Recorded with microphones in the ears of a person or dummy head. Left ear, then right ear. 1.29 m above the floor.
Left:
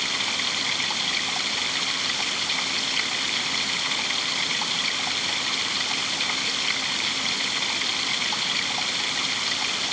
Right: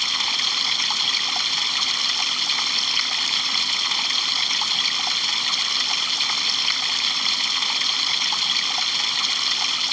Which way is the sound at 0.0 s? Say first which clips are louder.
Right 4 dB; 60° right (ahead or behind).